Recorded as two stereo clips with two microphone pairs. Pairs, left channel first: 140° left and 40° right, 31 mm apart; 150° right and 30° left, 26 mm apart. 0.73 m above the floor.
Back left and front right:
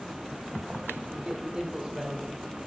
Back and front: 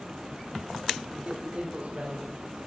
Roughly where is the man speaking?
Ahead.